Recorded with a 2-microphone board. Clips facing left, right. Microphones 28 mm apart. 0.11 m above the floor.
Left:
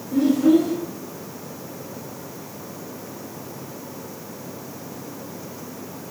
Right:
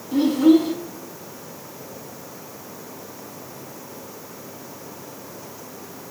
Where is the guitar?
No guitar in this recording.